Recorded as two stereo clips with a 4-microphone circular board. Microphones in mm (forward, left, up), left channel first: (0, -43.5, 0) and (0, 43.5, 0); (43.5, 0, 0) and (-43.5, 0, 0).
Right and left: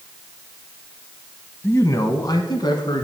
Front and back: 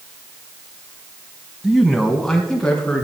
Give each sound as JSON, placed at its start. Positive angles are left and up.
{"t": 1.6, "sound": "a man speaking", "azimuth_deg": -105, "distance_m": 1.1}